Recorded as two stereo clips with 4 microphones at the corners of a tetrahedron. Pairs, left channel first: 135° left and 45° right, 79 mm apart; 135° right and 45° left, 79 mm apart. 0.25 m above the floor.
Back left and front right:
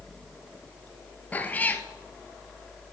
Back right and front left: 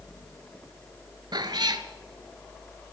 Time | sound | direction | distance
1.3 | a cat meowing | 65° left | 0.6 m